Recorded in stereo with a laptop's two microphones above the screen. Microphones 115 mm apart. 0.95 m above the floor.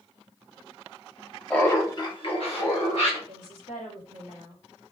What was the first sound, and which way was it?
Laughter, 10° left (ahead or behind).